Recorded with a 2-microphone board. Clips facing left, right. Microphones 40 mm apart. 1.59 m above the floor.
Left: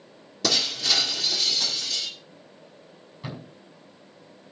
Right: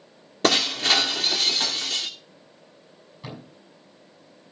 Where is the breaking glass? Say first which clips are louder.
Right 5 dB; 40° right (ahead or behind), 2.5 m.